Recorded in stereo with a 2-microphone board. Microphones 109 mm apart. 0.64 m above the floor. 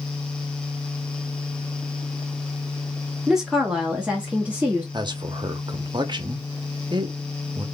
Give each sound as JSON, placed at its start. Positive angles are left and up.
{"t": 3.3, "sound": "a woman speaking", "side_deg": -5, "distance_m": 0.9}
{"t": 4.9, "sound": "a man speaking", "side_deg": -45, "distance_m": 0.7}